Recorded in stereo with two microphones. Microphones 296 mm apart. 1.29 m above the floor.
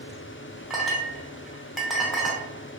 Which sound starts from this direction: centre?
A clink, at 0.7 s.